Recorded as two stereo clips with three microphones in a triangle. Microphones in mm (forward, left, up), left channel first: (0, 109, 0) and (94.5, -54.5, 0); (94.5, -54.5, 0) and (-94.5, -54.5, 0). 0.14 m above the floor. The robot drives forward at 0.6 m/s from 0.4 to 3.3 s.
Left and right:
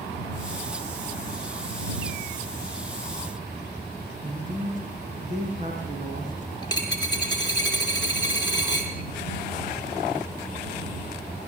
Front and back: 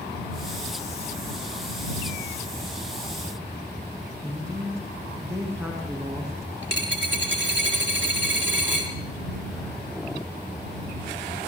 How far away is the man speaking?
About 8.5 m.